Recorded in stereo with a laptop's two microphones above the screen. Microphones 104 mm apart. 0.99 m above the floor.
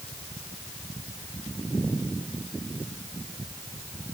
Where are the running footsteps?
I don't hear running footsteps.